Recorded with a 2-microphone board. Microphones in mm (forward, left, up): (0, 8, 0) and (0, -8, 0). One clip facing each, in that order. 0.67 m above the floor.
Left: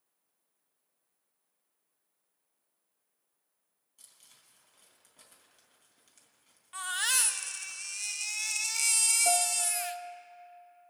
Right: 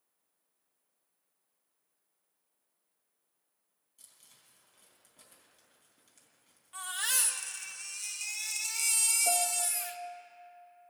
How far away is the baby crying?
About 0.6 m.